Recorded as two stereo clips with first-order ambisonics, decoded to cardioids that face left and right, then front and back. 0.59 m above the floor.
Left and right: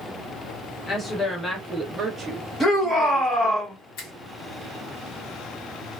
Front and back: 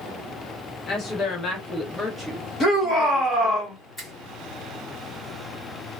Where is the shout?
20° left, 1.3 m.